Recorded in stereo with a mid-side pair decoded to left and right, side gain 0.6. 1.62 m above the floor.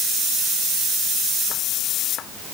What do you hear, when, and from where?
Only background noise.